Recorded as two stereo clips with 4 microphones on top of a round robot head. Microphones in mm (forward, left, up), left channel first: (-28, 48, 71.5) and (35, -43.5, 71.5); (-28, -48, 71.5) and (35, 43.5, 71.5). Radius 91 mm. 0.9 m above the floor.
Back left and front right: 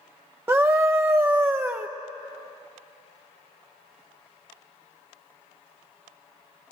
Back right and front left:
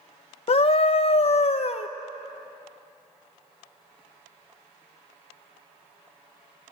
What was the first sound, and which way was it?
A scream, 120° right.